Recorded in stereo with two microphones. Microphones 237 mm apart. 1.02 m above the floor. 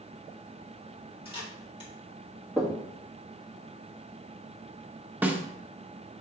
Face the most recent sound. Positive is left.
turn(degrees=-5)  # may be behind; listen again after turning